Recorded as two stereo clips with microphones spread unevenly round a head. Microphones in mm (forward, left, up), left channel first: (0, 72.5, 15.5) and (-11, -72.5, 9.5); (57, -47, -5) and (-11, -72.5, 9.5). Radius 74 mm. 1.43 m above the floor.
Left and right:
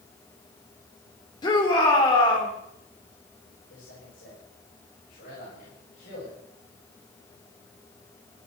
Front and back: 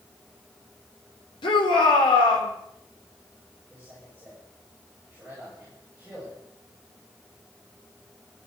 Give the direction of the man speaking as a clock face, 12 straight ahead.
9 o'clock.